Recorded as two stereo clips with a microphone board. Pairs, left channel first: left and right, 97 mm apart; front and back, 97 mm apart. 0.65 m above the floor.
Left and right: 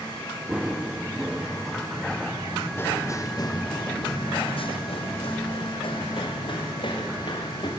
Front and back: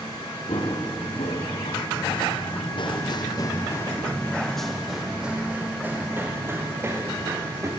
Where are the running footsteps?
10° right, 4 m; by 7.7 s 120° left, 5.5 m.